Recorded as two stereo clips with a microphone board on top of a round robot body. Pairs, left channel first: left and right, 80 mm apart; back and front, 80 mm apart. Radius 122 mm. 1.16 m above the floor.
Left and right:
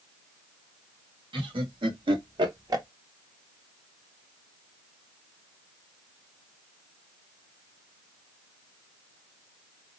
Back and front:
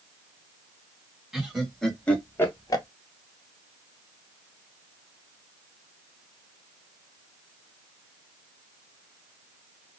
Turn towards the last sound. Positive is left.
turn(degrees=-140)